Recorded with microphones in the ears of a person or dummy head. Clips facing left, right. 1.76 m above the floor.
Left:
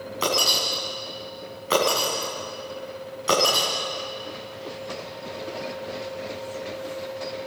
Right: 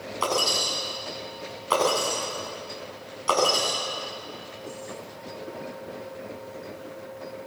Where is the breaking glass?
25° left (ahead or behind), 8 m.